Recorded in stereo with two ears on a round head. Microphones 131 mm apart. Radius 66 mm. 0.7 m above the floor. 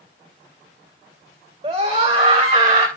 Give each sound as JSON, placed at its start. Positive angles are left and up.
{"t": 1.6, "sound": "a scream", "side_deg": -25, "distance_m": 3.0}